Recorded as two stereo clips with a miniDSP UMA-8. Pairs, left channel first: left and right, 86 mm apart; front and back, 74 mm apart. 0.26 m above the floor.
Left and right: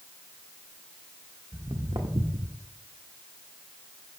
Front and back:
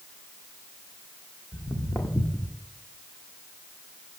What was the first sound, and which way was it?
Footsteps, 45° right.